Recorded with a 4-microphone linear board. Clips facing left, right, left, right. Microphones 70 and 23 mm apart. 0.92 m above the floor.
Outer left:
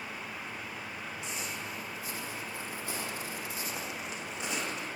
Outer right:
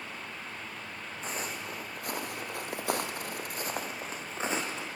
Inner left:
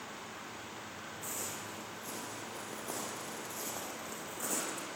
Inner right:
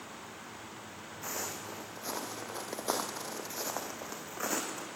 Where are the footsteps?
45° right (ahead or behind), 2.5 m; by 4.9 s 30° right (ahead or behind), 3 m.